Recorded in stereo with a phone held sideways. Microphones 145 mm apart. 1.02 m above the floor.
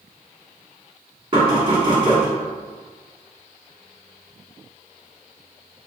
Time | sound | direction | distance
1.3 | knocking | 35° right (ahead or behind) | 1.7 m